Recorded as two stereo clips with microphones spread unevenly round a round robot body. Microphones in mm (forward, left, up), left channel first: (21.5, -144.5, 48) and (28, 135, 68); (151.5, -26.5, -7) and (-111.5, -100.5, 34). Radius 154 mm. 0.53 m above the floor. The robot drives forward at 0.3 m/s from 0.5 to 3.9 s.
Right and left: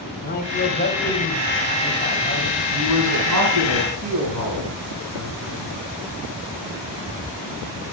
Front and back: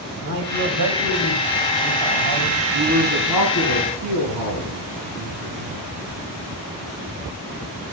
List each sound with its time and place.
0.2 s a man speaking: 150° right, 2.5 m; by 2.6 s 155° right, 3 m
2.7 s a man speaking: 125° left, 4.5 m